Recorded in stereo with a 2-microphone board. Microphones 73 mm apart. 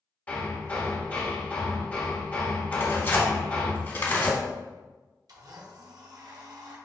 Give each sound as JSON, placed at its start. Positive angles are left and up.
{"t": 0.3, "sound": "hammering", "side_deg": 20, "distance_m": 1.1}
{"t": 2.7, "sound": "tearing paper", "side_deg": 30, "distance_m": 1.1}
{"t": 5.3, "sound": "a blender", "side_deg": -60, "distance_m": 0.9}